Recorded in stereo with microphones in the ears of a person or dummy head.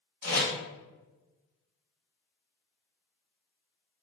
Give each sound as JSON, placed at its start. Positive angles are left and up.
{"t": 0.2, "sound": "tape being pulled", "side_deg": 55, "distance_m": 1.6}